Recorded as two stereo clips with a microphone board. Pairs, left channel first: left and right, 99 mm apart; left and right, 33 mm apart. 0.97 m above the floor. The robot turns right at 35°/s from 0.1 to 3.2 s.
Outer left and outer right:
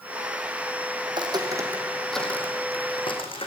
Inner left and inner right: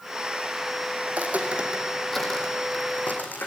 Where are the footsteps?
60° right (ahead or behind), 3 m; by 3.5 s 65° left (ahead or behind), 4 m.